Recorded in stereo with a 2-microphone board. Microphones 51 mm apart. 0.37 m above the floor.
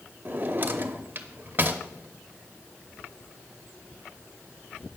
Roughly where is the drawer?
Right.